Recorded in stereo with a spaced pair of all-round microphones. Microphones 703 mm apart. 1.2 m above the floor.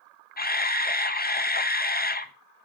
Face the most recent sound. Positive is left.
turn(degrees=15)  # may be behind; listen again after turning